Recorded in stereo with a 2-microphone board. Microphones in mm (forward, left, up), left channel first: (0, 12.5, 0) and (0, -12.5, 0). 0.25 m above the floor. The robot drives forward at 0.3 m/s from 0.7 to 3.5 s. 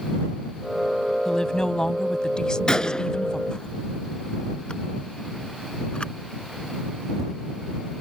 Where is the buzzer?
No buzzer in this recording.